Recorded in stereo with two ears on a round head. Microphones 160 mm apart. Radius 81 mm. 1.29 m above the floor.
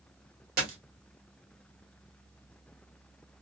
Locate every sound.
0.6 s a dropped coin: 55° right (ahead or behind), 1.5 m